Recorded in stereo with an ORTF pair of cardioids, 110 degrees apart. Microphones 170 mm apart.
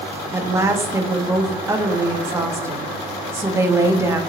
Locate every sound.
0.3 s a woman speaking: 15° right, 0.8 m